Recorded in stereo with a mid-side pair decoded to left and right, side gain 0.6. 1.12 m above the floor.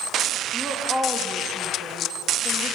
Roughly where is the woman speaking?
Ahead.